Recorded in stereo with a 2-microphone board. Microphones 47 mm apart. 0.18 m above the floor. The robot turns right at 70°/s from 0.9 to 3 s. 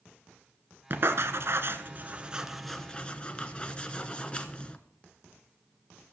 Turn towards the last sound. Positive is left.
turn(degrees=25)  # may be behind; listen again after turning